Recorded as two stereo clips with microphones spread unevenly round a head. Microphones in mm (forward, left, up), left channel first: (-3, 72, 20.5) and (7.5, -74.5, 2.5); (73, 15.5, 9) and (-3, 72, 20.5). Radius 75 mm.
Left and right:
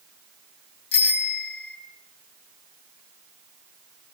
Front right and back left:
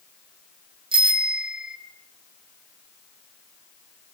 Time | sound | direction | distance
0.9 | a bicycle bell | 120° left | 5.5 m